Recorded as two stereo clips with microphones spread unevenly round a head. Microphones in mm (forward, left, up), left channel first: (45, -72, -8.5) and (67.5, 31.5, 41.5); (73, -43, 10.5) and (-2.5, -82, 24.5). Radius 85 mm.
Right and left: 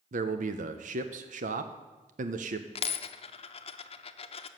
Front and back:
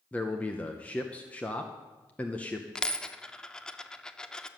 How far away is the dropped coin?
About 0.7 m.